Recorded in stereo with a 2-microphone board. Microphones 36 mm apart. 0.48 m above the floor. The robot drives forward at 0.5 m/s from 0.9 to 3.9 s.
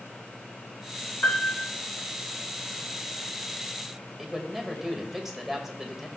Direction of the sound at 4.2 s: 10° right (ahead or behind).